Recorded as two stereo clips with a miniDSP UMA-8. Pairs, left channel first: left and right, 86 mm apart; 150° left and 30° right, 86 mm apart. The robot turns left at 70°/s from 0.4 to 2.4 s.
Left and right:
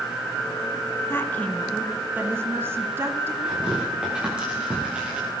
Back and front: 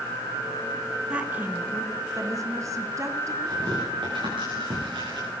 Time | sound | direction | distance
1.1 | a woman speaking | 45° left | 1.7 m
3.4 | tearing paper | 10° right | 6.5 m